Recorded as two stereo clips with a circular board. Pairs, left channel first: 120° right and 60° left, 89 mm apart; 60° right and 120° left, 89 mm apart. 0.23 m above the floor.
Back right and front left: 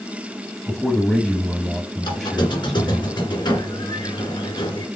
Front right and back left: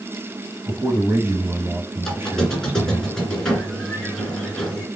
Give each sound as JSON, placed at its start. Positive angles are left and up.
{"t": 0.7, "sound": "a man speaking", "azimuth_deg": 155, "distance_m": 1.1}
{"t": 2.0, "sound": "a squeak", "azimuth_deg": -145, "distance_m": 2.0}